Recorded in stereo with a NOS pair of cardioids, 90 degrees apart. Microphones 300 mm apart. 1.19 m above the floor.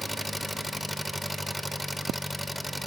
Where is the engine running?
Straight ahead, 0.9 m.